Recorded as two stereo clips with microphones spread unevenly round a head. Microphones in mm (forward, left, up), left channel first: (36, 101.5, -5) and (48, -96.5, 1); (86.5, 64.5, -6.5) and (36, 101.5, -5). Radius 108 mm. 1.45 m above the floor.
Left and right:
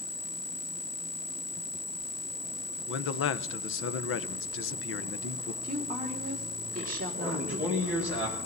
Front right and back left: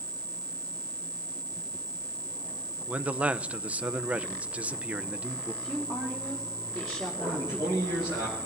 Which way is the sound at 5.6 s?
145° right.